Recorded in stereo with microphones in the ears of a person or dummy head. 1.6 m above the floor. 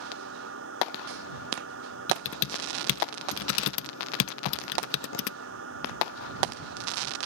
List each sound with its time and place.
0.0 s a machine running: 90° right
2.1 s typing on a keyboard: 80° left